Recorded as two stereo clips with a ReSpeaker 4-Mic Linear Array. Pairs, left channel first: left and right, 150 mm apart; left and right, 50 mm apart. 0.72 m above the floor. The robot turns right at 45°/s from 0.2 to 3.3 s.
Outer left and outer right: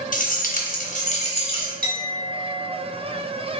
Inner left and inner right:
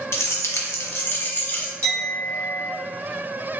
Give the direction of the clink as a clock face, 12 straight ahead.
4 o'clock.